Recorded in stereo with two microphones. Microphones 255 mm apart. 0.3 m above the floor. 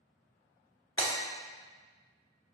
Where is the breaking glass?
55° left (ahead or behind), 1.2 m.